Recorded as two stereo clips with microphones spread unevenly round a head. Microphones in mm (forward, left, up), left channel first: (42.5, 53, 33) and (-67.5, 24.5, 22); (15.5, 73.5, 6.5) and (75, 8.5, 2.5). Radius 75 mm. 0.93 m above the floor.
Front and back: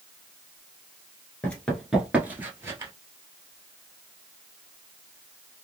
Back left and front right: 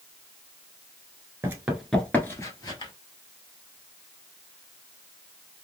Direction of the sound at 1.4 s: 35° right.